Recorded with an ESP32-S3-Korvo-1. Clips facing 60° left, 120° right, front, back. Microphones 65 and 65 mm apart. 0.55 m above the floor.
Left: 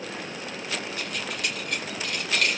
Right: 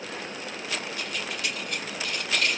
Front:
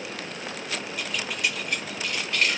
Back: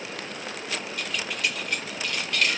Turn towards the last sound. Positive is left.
turn(degrees=60)